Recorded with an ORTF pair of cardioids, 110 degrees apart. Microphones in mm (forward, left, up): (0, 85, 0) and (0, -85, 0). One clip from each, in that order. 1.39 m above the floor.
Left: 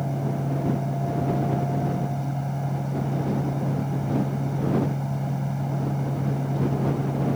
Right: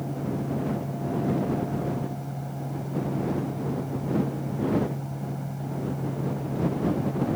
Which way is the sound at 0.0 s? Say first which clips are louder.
Left 2 dB; 40° left.